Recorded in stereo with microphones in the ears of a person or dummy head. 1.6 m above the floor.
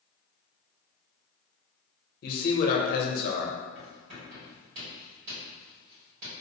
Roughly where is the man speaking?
Left.